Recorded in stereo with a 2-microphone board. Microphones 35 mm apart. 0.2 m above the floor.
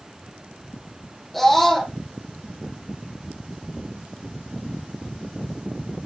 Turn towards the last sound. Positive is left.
turn(degrees=0)  # may be behind; listen again after turning